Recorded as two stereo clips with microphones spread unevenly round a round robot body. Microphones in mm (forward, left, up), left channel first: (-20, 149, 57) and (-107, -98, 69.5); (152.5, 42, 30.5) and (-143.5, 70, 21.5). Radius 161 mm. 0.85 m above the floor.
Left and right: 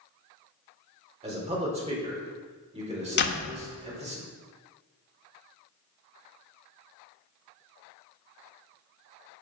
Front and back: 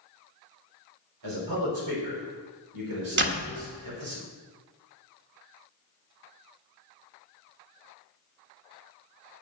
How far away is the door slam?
About 1.3 m.